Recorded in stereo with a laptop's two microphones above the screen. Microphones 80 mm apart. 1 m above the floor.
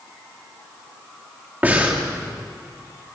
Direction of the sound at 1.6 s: 20° right (ahead or behind).